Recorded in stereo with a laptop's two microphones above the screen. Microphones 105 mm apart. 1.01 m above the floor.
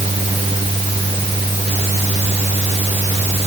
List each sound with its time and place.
0.0 s a fan: 70° right (ahead or behind)